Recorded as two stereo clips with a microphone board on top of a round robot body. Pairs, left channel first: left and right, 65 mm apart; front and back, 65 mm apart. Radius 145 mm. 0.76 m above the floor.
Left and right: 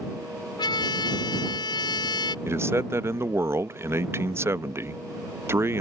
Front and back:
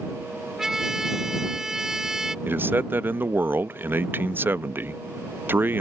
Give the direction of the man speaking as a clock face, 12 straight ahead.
4 o'clock.